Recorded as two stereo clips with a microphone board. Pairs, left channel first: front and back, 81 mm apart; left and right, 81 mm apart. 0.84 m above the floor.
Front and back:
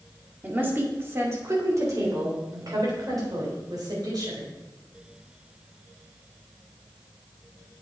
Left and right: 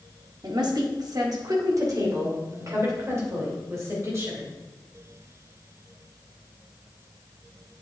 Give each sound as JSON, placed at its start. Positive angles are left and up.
{"t": 0.4, "sound": "a woman speaking", "azimuth_deg": -115, "distance_m": 2.0}